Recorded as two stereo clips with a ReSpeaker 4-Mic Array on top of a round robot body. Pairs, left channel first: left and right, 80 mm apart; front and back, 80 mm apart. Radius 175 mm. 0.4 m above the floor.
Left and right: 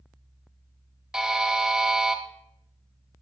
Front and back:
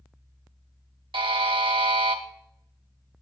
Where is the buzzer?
175° right, 1.8 m.